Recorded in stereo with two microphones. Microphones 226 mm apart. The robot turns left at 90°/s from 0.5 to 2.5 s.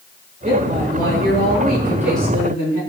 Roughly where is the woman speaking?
Ahead right.